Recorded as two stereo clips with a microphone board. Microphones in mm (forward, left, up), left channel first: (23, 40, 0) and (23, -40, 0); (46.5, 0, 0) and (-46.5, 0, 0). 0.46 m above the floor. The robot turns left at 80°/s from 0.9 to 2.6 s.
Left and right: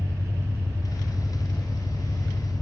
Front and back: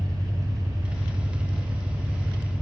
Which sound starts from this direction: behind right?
An engine running, at 0.0 s.